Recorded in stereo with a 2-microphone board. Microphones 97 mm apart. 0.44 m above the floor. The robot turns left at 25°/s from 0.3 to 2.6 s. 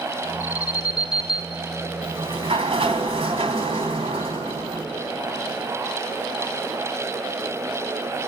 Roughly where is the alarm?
Behind right.